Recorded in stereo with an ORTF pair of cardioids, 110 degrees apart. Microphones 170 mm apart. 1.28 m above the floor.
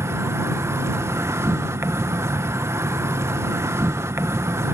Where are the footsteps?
I don't hear footsteps.